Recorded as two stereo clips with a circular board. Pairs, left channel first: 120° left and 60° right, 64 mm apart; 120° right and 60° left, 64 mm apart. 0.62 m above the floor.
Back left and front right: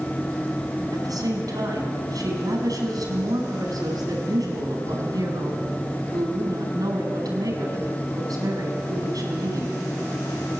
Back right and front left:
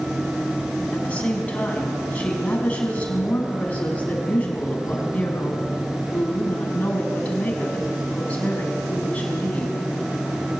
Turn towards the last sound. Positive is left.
turn(degrees=-50)